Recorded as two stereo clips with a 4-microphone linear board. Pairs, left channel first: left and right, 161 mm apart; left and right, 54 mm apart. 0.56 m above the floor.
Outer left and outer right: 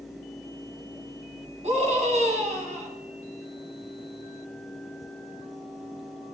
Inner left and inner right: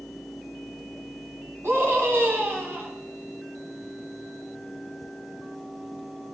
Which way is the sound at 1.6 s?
50° right (ahead or behind).